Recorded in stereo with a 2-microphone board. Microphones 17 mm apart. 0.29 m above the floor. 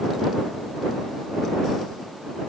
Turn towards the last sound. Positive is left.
No sound to turn to.